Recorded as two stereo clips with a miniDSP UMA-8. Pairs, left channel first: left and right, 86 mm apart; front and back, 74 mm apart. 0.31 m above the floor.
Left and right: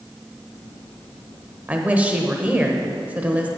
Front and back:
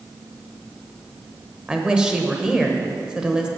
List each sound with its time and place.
1.7 s a woman speaking: 120° right, 1.0 m